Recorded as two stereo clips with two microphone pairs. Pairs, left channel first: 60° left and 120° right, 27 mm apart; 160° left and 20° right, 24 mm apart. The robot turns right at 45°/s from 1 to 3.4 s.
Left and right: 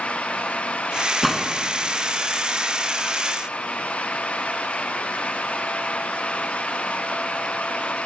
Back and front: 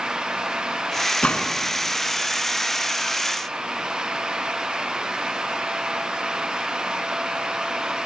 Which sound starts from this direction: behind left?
A gunshot, at 1.2 s.